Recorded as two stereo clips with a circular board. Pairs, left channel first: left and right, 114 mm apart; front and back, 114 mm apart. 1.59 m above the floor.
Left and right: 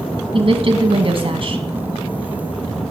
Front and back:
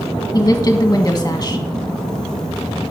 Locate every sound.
0.3 s a woman speaking: 60° right, 1.3 m